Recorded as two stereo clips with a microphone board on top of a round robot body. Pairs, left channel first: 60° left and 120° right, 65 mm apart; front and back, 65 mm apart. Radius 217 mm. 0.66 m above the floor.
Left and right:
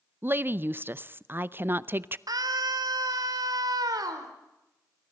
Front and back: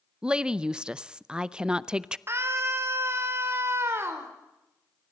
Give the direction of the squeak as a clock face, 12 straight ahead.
I don't hear a squeak.